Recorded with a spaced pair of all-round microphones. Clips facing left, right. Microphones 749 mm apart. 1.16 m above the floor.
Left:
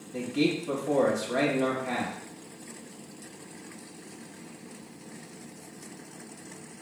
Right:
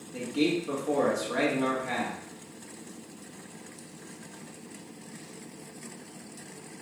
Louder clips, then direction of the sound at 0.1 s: Even; 5° left (ahead or behind).